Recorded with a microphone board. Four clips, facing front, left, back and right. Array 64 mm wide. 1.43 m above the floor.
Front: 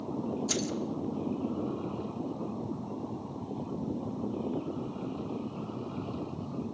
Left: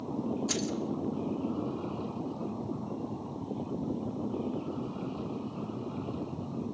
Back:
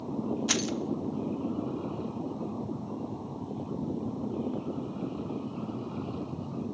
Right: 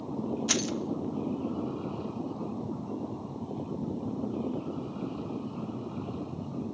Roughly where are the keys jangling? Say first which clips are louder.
Right 2 dB, back 2 dB; behind right.